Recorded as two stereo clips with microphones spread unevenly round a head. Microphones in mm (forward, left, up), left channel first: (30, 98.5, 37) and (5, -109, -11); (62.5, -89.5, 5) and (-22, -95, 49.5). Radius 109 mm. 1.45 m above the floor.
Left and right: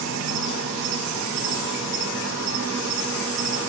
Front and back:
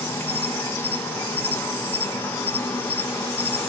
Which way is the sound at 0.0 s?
75° right.